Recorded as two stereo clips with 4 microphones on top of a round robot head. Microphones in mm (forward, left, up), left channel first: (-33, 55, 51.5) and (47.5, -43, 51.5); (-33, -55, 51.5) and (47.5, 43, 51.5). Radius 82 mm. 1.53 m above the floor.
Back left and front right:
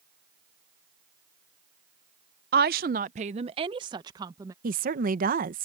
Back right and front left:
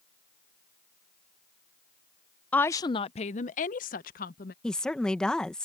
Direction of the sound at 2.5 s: 50° right.